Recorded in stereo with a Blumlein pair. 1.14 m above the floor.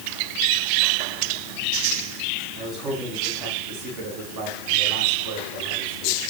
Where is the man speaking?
30° right, 9.5 m; by 6.2 s 45° right, 8.5 m.